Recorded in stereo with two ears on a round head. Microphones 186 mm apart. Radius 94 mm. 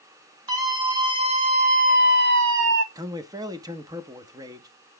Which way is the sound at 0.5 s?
20° right (ahead or behind).